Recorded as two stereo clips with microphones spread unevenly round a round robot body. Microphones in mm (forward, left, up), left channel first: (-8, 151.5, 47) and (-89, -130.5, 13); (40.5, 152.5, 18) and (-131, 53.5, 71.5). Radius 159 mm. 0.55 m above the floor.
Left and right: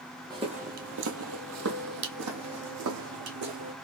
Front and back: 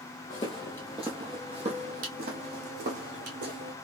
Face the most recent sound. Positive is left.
turn(degrees=-145)